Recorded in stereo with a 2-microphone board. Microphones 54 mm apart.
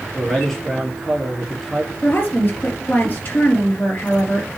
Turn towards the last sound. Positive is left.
turn(degrees=35)  # may be behind; listen again after turning